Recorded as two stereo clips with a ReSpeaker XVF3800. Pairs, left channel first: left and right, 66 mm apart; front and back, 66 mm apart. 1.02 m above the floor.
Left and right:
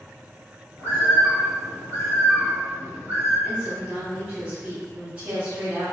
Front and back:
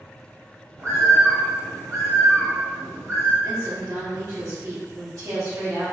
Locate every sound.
0.8 s a bird: 135° right, 1.4 m
3.4 s a woman speaking: 155° right, 1.5 m